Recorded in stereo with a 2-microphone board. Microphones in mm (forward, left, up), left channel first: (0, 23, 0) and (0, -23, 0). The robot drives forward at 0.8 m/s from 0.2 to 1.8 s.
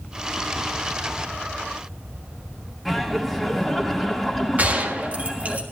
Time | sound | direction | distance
2.9 | laughter | centre (ahead or behind) | 2 m
4.6 | a gunshot | 35° right (ahead or behind) | 1.6 m